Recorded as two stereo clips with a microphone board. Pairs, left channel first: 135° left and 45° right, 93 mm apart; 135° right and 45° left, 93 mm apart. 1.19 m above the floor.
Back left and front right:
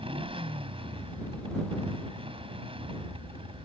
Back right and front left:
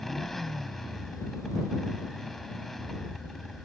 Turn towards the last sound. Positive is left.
turn(degrees=-50)